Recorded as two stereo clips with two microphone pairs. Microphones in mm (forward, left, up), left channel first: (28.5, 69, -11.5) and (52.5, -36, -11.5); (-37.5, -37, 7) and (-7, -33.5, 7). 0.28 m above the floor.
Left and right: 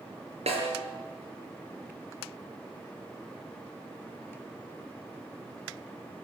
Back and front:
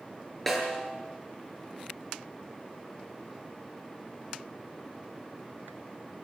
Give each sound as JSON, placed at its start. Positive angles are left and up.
{"t": 0.5, "sound": "a snare drum", "azimuth_deg": -85, "distance_m": 6.0}